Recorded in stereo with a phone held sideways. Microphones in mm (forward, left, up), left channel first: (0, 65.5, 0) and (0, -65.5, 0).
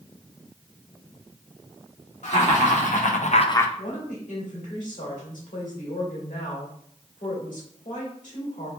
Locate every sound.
2.2 s laughter: 65° left (ahead or behind), 1.9 m; by 3.7 s 15° left (ahead or behind), 0.5 m
3.8 s a woman speaking: 80° left, 2 m